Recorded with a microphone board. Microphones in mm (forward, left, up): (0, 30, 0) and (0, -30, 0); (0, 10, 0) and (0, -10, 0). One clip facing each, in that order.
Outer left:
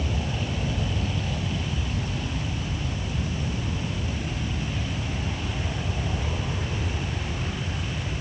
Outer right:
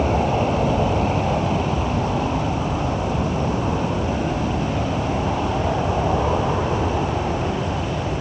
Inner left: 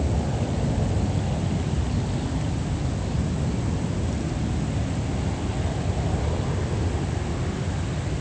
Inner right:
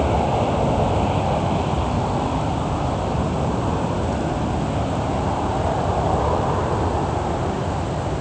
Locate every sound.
0.0 s an aircraft: 55° right (ahead or behind); by 8.2 s 50° right (ahead or behind)